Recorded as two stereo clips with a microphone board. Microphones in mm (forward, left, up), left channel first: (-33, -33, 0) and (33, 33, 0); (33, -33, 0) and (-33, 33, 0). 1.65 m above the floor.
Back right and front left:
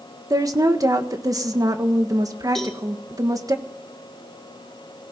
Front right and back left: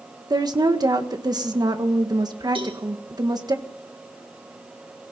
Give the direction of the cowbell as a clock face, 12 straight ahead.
7 o'clock.